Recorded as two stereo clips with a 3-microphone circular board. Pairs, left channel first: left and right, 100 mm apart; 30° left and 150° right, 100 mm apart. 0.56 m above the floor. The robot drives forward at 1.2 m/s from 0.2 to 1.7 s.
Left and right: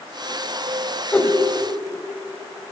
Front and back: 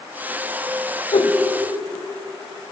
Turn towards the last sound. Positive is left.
turn(degrees=20)